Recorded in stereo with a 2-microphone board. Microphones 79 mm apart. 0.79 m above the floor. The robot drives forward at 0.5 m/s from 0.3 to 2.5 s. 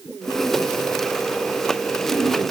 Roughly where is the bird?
No bird in this recording.